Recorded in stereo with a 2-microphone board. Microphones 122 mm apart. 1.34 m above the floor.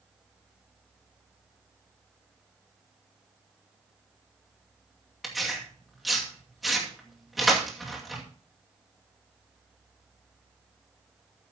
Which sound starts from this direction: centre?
Tearing paper, at 5.2 s.